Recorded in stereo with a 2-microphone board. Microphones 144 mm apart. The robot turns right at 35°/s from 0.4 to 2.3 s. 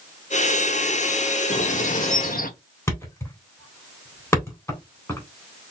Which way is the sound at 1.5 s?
55° left (ahead or behind).